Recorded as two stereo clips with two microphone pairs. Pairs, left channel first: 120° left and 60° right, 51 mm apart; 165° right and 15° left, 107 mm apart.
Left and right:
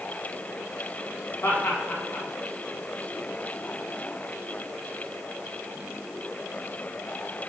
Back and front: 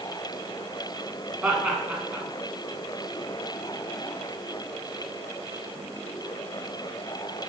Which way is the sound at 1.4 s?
95° left.